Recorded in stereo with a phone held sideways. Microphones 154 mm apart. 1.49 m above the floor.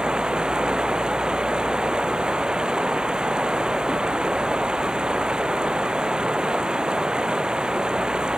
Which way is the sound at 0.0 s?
5° right (ahead or behind).